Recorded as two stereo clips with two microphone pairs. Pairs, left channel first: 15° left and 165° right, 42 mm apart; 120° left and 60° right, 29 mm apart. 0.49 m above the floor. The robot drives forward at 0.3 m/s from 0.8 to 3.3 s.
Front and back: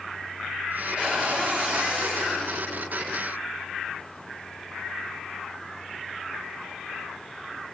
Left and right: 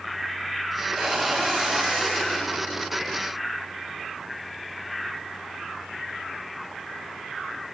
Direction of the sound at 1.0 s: 120° right.